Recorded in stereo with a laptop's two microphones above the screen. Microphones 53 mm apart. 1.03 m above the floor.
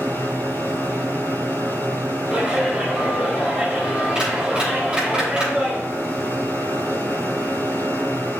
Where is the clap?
15° right (ahead or behind), 3.5 m.